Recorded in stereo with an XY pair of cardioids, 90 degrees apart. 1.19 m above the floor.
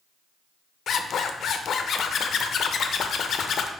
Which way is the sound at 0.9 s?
60° left.